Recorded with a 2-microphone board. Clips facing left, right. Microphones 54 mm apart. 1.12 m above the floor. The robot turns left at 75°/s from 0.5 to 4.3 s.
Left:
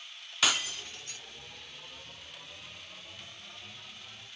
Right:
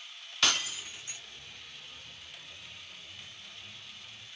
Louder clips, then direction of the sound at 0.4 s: Left 1 dB; 5° left (ahead or behind).